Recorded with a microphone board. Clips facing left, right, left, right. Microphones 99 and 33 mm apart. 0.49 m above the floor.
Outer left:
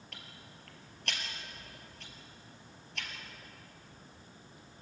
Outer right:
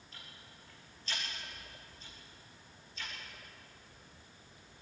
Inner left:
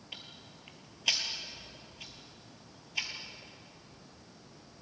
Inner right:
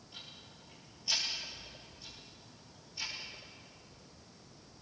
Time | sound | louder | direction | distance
0.1 | ticking | outer left 1 dB, inner left 3 dB | 75° left (ahead or behind) | 3 m